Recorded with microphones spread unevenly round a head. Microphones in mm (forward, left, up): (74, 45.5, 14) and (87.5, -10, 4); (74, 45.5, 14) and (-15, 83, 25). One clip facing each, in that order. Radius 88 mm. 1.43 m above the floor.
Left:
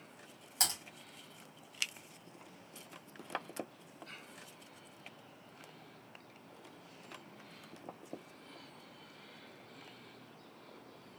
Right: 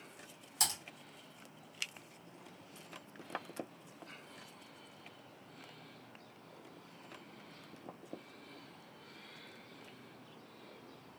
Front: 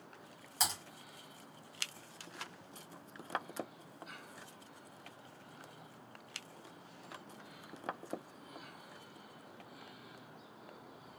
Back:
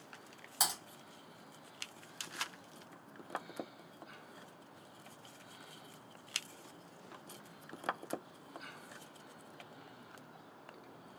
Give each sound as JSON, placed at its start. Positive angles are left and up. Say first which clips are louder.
{"t": 0.6, "sound": "typing on a keyboard", "louder": "left 1 dB, even", "azimuth_deg": 90, "distance_m": 1.8}